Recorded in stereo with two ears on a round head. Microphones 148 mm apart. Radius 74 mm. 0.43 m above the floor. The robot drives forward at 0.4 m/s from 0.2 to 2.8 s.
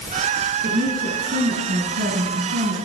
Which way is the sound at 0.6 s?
55° right (ahead or behind).